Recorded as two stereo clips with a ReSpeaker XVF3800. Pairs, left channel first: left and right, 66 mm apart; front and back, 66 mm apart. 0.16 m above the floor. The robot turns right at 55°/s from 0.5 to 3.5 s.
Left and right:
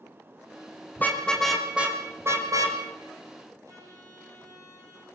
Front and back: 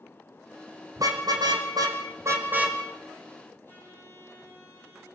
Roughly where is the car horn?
Behind left.